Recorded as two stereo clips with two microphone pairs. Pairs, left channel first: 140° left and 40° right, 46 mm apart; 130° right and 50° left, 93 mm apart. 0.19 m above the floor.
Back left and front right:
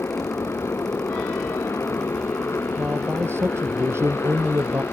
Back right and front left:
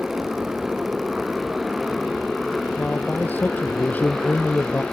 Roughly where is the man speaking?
Ahead right.